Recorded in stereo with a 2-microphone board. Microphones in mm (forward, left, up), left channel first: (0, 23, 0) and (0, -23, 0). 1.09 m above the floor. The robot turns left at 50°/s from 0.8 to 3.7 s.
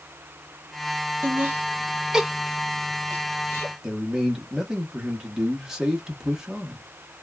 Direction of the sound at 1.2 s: 60° right (ahead or behind).